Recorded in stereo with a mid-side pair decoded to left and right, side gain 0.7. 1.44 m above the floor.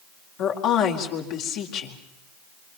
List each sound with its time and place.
0.4 s a woman speaking: 60° left, 4.5 m